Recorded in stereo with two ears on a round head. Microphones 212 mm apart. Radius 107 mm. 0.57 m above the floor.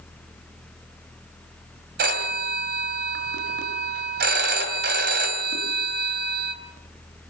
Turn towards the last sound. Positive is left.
turn(degrees=-45)  # may be behind; listen again after turning